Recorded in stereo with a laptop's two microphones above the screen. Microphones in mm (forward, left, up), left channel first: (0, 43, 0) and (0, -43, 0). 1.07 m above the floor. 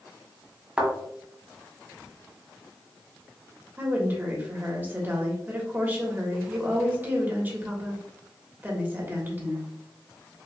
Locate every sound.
0.8 s a thud: 15° right (ahead or behind), 1.3 m
3.8 s a woman speaking: 25° right (ahead or behind), 1.3 m